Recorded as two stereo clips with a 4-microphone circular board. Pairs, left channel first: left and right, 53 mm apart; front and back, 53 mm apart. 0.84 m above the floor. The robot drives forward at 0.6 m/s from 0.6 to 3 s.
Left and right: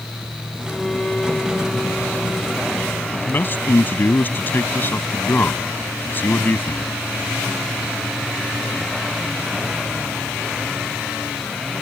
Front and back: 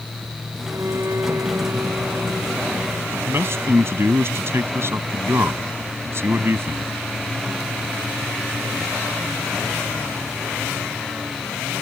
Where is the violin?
170° left; by 4.1 s 175° left.